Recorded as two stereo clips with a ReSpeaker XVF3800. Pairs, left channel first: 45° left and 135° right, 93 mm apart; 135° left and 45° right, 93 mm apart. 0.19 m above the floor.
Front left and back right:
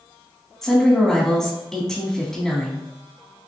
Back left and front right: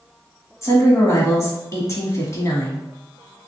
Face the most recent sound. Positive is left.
turn(degrees=125)